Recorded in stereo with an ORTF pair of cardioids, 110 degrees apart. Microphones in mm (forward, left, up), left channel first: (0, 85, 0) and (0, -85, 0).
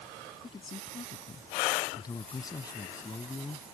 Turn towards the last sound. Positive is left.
turn(degrees=20)